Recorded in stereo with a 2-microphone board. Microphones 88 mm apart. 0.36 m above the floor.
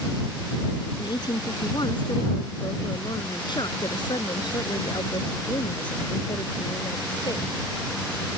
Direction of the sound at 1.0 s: 55° left (ahead or behind).